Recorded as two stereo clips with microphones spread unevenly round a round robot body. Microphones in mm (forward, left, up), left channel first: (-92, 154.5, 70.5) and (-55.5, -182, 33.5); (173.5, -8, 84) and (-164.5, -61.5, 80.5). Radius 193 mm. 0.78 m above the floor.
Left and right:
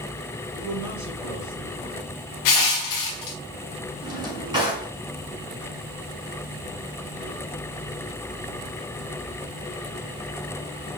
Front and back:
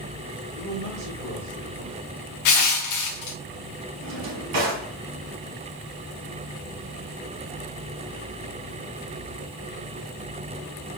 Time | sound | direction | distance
0.5 | a man speaking | straight behind | 4 m
2.5 | crushing | 55° left | 0.5 m
4.0 | a drawer | 165° right | 3.5 m